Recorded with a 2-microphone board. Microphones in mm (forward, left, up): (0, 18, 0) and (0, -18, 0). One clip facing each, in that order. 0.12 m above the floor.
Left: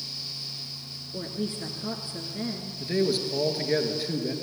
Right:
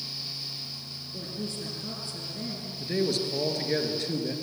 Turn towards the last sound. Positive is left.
turn(degrees=10)  # may be behind; listen again after turning